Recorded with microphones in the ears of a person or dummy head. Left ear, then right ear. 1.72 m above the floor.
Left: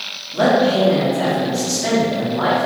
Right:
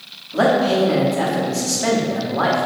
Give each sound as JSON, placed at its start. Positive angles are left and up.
{"t": 0.3, "sound": "a man speaking", "side_deg": -35, "distance_m": 0.8}